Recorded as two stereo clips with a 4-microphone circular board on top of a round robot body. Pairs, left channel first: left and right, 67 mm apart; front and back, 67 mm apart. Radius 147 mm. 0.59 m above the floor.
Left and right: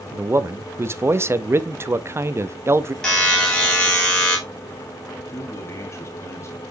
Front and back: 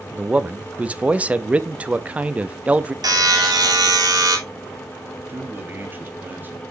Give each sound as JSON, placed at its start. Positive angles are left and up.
{"t": 0.1, "sound": "a man speaking", "azimuth_deg": -120, "distance_m": 0.7}
{"t": 3.0, "sound": "a buzzer", "azimuth_deg": 165, "distance_m": 3.0}
{"t": 5.3, "sound": "a man speaking", "azimuth_deg": 125, "distance_m": 1.8}